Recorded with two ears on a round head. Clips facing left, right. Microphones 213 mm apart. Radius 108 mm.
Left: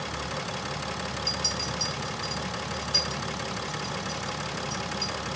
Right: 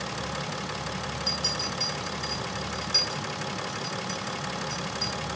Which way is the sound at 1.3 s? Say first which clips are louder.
Even; 10° right (ahead or behind).